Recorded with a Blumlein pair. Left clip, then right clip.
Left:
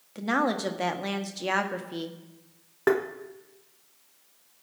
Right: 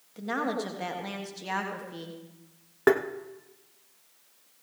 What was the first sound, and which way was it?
A woman speaking, 40° left.